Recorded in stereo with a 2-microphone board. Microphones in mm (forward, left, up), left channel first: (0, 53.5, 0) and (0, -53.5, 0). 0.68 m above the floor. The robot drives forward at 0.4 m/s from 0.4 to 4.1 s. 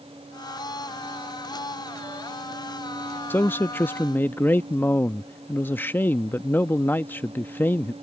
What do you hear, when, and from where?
3.3 s a man speaking: 15° left (ahead or behind)